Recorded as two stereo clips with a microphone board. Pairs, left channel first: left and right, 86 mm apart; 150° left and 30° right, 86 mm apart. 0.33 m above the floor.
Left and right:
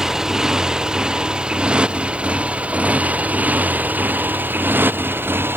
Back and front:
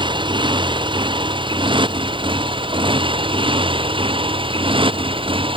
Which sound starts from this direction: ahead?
A motorcycle, at 0.0 s.